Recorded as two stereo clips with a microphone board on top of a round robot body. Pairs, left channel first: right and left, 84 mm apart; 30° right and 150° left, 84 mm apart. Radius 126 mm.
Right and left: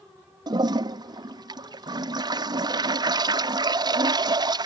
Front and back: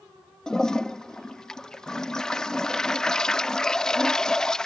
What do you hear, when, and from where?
0.5 s a toilet flushing: 50° left